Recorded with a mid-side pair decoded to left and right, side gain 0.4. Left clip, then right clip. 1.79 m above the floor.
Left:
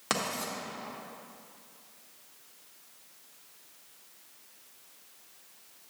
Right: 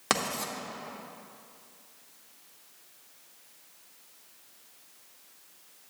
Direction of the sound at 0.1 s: 40° right.